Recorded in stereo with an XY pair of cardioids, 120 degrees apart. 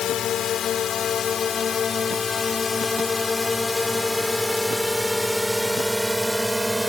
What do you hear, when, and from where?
0.0 s a drone: 55° left; by 6.9 s 10° right